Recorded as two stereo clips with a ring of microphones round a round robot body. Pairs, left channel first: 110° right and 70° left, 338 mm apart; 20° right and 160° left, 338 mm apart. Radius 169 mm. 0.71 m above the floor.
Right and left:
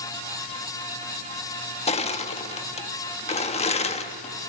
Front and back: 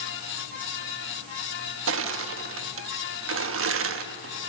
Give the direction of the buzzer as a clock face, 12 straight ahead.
I don't hear a buzzer.